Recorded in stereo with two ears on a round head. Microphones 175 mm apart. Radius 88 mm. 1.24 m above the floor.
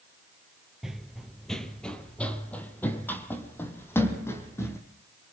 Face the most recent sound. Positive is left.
turn(degrees=15)  # may be behind; listen again after turning